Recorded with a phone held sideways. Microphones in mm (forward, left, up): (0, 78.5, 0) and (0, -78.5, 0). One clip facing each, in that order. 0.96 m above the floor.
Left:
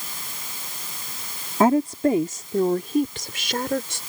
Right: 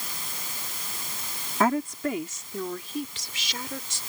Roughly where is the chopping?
No chopping in this recording.